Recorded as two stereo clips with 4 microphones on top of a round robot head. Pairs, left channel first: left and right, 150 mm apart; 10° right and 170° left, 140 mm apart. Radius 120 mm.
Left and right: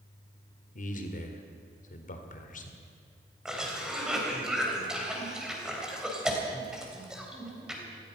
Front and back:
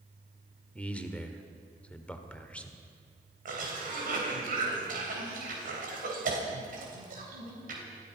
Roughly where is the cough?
Behind.